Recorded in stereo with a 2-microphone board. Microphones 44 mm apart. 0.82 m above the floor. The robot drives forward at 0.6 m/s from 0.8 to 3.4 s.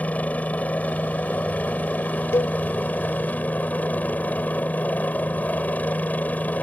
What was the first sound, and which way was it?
A helicopter, 35° left (ahead or behind).